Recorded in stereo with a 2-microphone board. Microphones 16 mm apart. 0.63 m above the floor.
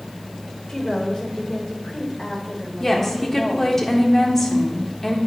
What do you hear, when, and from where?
0.7 s a woman speaking: 50° left (ahead or behind), 2 m
2.8 s a woman speaking: 20° left (ahead or behind), 1.4 m